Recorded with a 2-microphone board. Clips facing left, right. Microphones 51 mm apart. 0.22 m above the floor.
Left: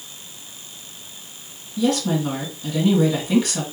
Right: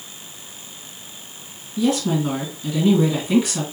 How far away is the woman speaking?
About 1.9 m.